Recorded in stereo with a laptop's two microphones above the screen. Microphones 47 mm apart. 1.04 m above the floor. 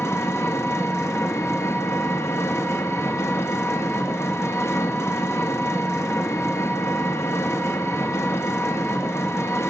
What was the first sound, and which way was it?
An engine running, 65° left (ahead or behind).